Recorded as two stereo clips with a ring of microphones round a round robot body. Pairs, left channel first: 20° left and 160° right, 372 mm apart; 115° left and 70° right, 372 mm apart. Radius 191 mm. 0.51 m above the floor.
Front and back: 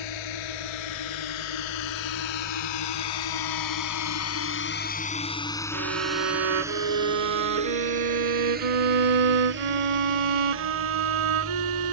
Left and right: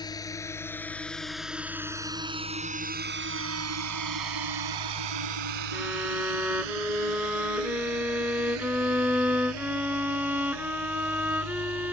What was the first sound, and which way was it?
A drone, 30° left.